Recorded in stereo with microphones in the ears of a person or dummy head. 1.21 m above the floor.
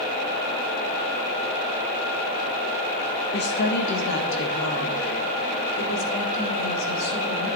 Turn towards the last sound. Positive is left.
turn(degrees=80)